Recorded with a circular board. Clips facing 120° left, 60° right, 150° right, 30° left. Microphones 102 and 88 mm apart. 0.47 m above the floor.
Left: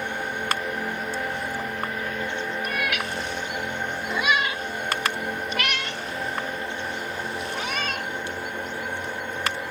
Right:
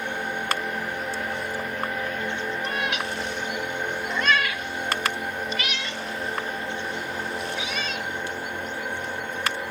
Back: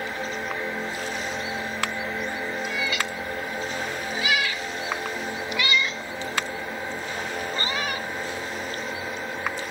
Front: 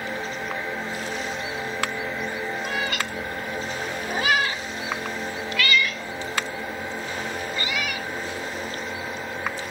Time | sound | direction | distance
2.6 | a cat meowing | straight ahead | ?